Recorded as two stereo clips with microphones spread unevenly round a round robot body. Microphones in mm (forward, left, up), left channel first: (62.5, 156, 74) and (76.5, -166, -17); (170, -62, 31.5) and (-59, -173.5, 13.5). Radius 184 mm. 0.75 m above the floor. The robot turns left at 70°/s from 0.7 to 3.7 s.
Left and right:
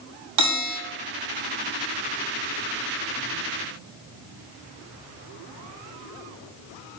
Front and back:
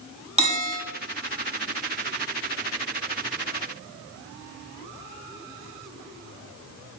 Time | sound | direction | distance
0.4 | a bell | 90° right | 7.5 m